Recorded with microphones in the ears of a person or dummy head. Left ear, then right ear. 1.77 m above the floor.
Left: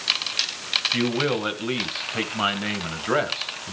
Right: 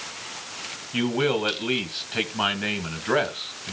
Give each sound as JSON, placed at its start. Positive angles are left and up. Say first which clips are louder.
{"t": 0.9, "sound": "a man speaking", "louder": "even", "side_deg": -5, "distance_m": 1.5}